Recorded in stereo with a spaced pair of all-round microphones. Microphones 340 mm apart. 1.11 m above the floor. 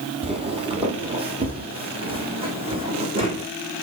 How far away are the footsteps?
About 2.0 m.